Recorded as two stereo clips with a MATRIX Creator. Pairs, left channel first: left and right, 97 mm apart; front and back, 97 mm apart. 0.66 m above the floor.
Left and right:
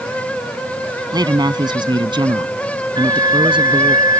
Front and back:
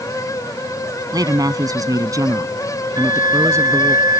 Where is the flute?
135° right.